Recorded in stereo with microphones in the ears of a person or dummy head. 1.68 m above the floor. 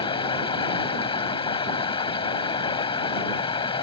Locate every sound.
0.0 s running water: 25° left (ahead or behind)